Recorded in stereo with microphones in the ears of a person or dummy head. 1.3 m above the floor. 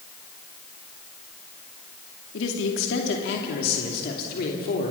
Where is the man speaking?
75° left (ahead or behind), 2.5 m; by 4.9 s 50° left (ahead or behind), 3 m.